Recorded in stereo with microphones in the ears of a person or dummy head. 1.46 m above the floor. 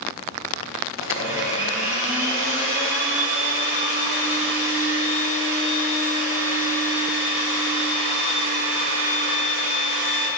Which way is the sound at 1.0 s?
5° right (ahead or behind).